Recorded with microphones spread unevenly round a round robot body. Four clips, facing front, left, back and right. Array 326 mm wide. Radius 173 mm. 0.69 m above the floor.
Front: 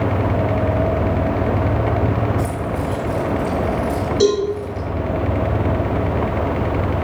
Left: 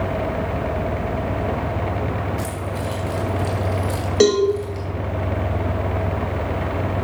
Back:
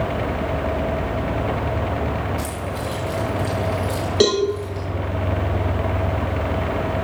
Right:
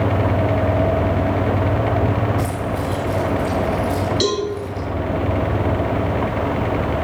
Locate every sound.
2.4 s keys jangling: 110° left, 7 m; by 4.9 s 100° left, 7 m
4.2 s a cowbell: 135° left, 5.5 m